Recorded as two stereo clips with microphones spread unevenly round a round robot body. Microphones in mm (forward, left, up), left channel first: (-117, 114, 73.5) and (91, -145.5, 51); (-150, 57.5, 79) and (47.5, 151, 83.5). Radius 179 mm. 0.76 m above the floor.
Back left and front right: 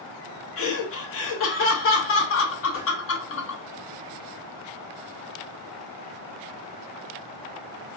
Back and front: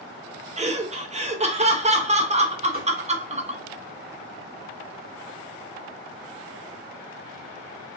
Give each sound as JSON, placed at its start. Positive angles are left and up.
{"t": 0.6, "sound": "laughter", "azimuth_deg": 85, "distance_m": 0.8}
{"t": 2.7, "sound": "a whoosh", "azimuth_deg": 65, "distance_m": 1.4}